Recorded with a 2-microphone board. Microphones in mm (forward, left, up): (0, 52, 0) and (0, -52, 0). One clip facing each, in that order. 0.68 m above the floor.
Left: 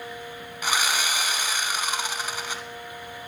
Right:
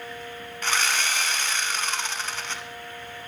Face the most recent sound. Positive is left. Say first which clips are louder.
# left 1 dB
turn(degrees=10)  # may be behind; listen again after turning